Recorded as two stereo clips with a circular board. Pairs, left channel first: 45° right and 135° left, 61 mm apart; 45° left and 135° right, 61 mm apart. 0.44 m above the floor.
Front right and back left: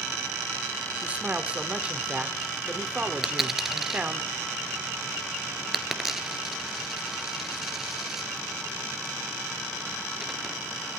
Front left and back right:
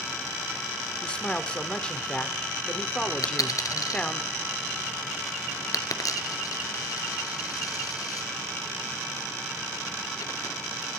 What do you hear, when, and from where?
1.0 s a man speaking: 95° left, 1.4 m
3.2 s a dropped coin: 50° left, 1.4 m